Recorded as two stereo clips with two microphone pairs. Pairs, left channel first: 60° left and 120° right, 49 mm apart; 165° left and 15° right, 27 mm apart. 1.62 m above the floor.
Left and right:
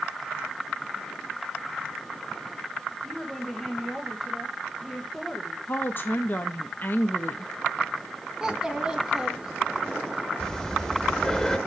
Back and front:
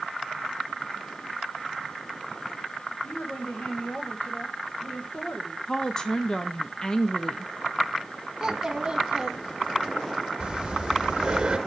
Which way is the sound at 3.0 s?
145° left.